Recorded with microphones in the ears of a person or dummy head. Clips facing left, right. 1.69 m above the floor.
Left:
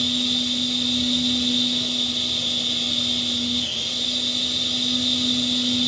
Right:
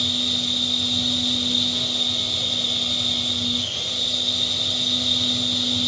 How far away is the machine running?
About 2 m.